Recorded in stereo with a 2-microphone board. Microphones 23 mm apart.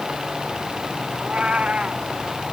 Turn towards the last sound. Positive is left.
turn(degrees=-65)  # may be behind; listen again after turning